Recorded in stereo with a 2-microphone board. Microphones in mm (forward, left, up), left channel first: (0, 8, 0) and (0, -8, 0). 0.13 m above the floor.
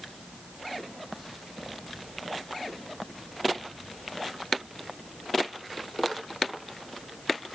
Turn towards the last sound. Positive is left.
No sound to turn to.